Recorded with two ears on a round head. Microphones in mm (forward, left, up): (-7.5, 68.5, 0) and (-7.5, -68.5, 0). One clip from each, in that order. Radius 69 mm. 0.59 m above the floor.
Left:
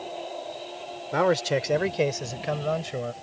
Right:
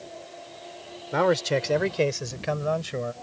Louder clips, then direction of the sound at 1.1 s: Even; 5° left (ahead or behind).